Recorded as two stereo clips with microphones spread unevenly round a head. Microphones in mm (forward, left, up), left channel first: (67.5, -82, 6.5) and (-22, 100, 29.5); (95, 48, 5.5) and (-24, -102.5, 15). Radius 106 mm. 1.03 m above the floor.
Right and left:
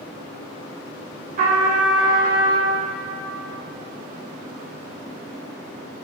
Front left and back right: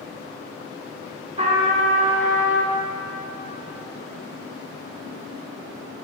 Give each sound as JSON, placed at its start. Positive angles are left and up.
{"t": 1.4, "sound": "a trumpet", "azimuth_deg": 165, "distance_m": 1.2}